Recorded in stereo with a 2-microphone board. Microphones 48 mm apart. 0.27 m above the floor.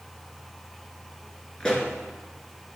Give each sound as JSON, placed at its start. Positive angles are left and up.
{"t": 1.6, "sound": "a pop", "side_deg": 20, "distance_m": 2.0}